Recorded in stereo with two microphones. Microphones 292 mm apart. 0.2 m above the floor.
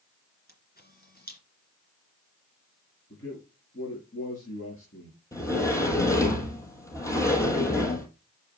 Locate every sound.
0.5 s a camera shutter: 30° left (ahead or behind), 2.5 m
3.1 s a man speaking: 45° left (ahead or behind), 4 m
5.3 s a sliding door: 10° left (ahead or behind), 2 m